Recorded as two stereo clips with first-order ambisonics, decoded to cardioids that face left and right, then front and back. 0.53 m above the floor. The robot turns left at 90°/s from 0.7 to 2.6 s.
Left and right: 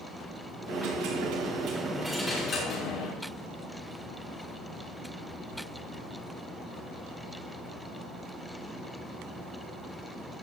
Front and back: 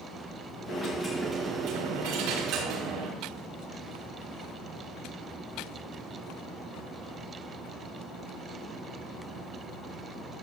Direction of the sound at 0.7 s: 50° right.